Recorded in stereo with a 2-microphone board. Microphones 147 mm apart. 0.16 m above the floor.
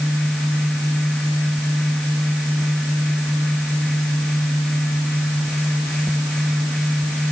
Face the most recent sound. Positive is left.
No sound to turn to.